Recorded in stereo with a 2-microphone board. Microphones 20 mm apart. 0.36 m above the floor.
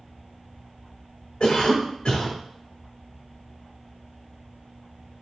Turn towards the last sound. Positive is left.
turn(degrees=45)  # may be behind; listen again after turning